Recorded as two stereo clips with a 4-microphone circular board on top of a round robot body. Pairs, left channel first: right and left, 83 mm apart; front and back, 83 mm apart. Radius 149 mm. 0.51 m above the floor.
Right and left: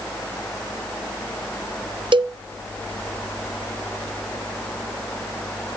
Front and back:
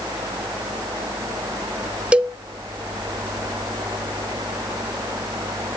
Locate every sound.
2.1 s a cowbell: 105° left, 0.5 m